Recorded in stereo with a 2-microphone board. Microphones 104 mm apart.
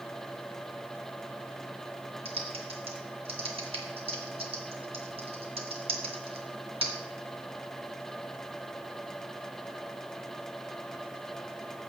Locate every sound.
2.2 s typing on a keyboard: 65° right (ahead or behind), 1.8 m